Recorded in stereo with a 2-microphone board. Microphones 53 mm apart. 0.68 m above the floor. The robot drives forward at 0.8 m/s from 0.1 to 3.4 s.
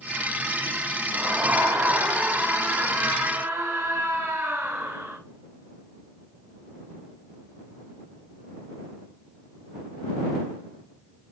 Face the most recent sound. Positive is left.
turn(degrees=-70)  # may be behind; listen again after turning